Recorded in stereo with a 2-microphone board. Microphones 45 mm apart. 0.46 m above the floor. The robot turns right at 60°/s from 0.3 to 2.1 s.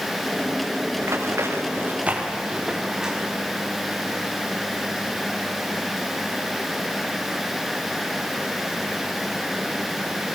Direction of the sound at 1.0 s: 75° right (ahead or behind).